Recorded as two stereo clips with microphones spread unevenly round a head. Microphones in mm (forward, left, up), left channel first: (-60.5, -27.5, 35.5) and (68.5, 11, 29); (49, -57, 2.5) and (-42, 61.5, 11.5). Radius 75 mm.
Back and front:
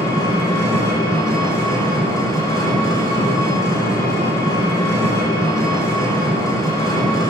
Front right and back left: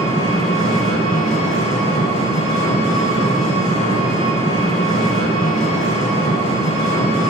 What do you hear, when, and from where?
0.0 s an engine running: 100° right, 5 m